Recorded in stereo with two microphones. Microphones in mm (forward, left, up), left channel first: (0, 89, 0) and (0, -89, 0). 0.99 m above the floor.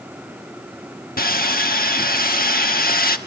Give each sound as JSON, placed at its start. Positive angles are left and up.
{"t": 1.2, "sound": "sawing", "side_deg": 60, "distance_m": 1.2}